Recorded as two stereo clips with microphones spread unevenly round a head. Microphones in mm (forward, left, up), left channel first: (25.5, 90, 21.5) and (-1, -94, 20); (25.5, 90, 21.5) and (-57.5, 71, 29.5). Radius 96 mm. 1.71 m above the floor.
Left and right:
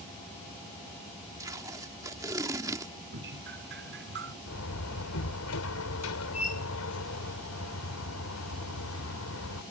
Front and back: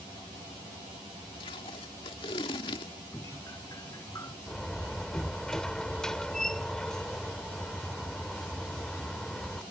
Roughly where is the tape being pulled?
Ahead right.